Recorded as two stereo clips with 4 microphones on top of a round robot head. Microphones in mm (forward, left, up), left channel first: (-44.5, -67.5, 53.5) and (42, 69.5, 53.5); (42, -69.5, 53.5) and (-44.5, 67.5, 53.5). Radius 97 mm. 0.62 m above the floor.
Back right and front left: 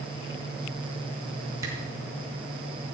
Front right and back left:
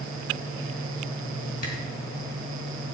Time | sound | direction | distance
1.6 | a camera shutter | 15° right | 4 m